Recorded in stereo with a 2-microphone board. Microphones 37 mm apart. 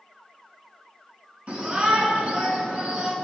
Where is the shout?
35° right (ahead or behind), 3.5 m.